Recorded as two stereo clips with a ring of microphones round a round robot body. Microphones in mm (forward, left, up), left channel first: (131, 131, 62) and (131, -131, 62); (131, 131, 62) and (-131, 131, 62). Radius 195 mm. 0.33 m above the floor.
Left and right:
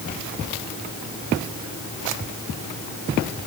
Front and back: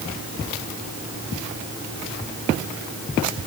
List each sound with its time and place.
Only background noise.